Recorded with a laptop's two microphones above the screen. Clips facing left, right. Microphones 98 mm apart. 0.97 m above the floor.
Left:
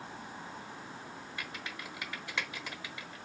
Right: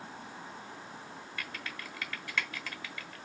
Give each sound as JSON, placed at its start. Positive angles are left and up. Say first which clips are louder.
{"t": 1.4, "sound": "typing on a keyboard", "louder": "right 1 dB", "side_deg": 20, "distance_m": 1.1}